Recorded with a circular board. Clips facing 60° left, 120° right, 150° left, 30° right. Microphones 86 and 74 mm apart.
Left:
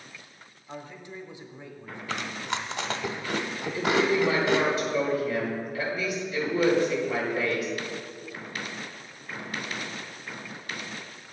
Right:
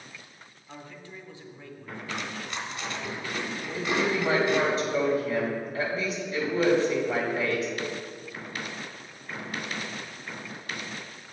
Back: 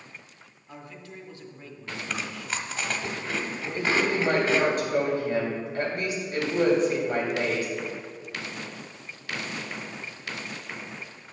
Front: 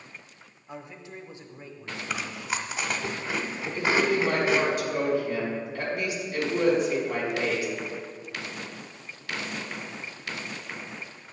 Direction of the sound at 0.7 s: 15° left.